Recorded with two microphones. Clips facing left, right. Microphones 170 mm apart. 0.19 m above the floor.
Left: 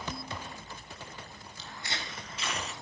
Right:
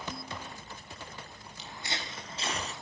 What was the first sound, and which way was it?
Footsteps, 15° right (ahead or behind).